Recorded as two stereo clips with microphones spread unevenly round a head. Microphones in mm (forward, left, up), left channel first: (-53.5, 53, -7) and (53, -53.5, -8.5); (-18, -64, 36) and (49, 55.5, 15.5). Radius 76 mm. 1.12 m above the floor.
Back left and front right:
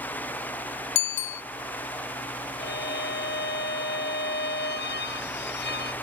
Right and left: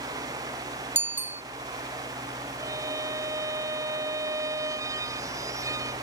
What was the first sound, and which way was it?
A bicycle bell, 140° left.